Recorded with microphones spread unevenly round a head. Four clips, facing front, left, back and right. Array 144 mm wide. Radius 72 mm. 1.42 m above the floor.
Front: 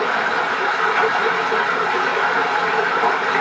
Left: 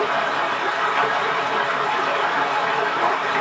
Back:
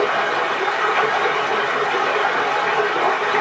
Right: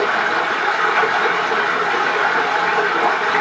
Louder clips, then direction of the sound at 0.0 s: Right 3 dB, even; 65° right.